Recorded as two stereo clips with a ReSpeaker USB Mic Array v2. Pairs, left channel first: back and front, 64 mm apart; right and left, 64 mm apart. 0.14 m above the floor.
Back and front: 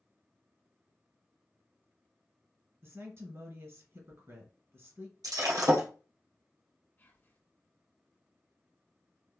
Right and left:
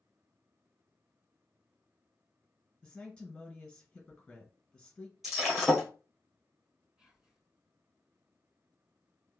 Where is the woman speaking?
20° right, 1.9 m.